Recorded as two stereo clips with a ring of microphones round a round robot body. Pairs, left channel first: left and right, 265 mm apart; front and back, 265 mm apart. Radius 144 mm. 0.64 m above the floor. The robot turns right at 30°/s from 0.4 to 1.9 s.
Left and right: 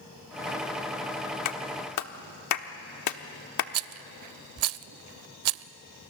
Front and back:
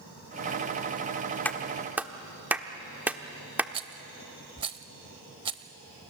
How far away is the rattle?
About 0.5 m.